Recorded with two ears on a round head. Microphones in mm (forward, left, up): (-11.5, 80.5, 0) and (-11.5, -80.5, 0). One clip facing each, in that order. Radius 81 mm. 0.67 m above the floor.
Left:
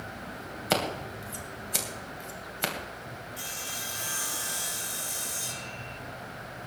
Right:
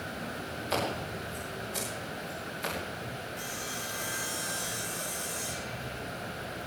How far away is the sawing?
About 3 m.